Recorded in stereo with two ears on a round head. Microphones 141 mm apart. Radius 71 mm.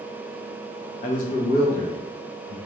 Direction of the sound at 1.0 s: 45° left (ahead or behind).